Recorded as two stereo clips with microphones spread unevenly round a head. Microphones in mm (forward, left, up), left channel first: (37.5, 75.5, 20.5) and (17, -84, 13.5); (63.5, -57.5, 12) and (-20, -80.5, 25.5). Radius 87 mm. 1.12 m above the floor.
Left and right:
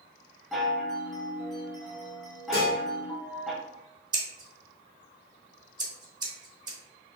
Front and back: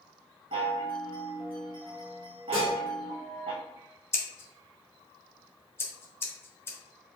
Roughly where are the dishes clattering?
Behind left.